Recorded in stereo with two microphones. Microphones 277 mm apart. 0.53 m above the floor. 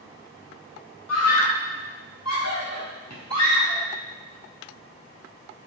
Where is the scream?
65° left (ahead or behind), 3 m; by 3.8 s 80° left, 4.5 m.